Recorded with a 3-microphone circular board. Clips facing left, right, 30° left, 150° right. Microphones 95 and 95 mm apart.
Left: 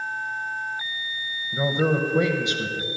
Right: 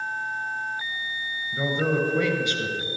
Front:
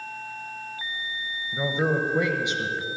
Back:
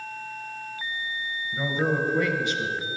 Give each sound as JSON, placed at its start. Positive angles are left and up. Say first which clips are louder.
{"t": 1.5, "sound": "a man speaking", "louder": "left 2 dB, front 1 dB", "azimuth_deg": 65, "distance_m": 0.9}